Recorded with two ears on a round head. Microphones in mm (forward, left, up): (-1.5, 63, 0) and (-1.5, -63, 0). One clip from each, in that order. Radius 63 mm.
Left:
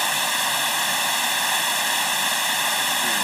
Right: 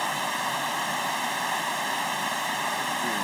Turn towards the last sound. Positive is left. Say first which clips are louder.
# left 5 dB
turn(degrees=65)  # may be behind; listen again after turning